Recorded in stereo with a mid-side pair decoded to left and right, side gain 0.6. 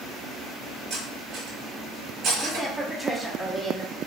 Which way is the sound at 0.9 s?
70° right.